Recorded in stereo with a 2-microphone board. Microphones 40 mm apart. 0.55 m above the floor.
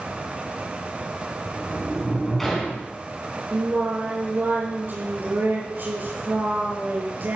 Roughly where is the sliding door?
Centre.